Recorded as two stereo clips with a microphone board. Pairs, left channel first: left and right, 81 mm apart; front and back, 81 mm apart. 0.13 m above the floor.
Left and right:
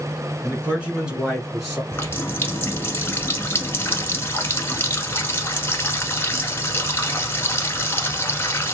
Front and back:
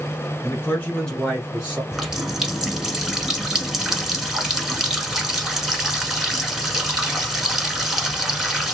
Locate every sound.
0.4 s a man speaking: 35° right, 1.6 m; by 1.8 s 175° left, 1.4 m
1.9 s a running tap: 100° left, 0.8 m